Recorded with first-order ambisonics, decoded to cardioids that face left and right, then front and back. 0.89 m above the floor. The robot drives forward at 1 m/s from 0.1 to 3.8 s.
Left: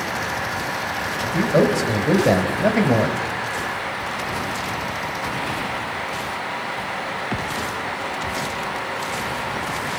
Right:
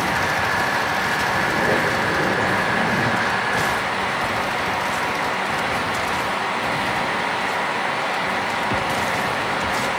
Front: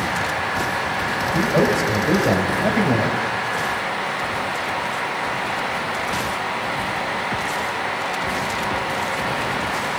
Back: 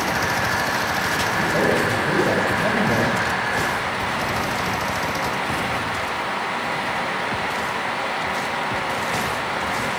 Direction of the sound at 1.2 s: 70° left.